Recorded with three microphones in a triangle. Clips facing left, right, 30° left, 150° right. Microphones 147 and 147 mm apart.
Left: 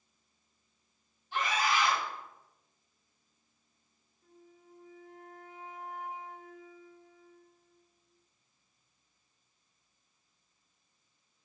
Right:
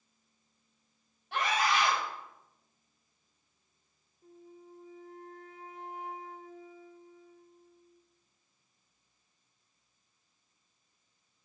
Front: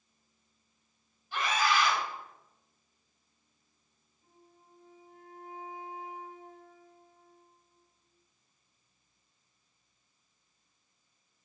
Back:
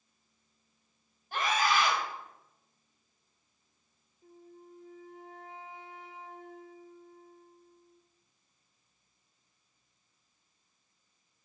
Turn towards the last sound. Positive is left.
turn(degrees=-150)